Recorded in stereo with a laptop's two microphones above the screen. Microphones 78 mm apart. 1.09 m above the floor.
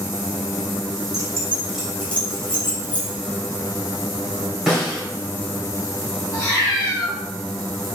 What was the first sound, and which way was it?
Keys jangling, 50° right (ahead or behind).